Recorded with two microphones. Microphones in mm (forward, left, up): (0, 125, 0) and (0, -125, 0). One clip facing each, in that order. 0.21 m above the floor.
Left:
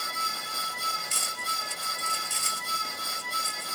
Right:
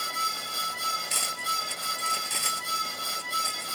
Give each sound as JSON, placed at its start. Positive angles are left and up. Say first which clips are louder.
{"t": 1.1, "sound": "cutlery clinking", "louder": "right 2 dB", "side_deg": -70}